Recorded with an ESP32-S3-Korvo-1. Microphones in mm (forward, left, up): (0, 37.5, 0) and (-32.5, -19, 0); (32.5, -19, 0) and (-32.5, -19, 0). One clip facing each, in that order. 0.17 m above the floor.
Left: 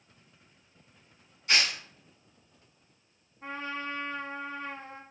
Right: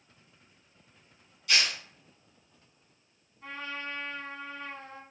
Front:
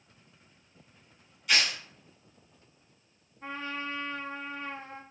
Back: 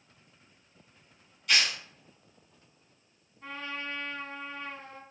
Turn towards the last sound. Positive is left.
turn(degrees=40)